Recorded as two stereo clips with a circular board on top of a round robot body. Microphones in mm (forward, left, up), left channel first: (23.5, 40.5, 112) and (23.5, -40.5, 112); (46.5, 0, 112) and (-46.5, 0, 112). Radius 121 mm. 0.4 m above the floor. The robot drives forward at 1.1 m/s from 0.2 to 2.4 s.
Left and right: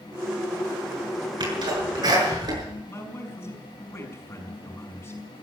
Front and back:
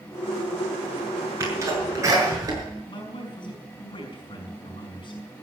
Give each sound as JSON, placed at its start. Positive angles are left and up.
{"t": 1.4, "sound": "a sneeze", "azimuth_deg": -120, "distance_m": 7.0}
{"t": 2.9, "sound": "a man speaking", "azimuth_deg": 30, "distance_m": 5.5}